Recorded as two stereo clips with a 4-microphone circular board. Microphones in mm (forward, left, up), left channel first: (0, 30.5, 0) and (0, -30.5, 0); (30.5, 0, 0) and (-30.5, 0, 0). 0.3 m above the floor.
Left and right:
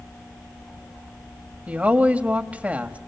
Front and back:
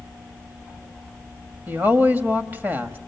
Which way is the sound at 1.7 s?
140° right.